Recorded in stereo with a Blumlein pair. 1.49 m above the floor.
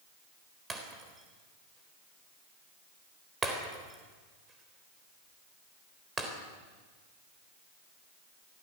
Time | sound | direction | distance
0.7 | breaking glass | 15° right | 3.5 m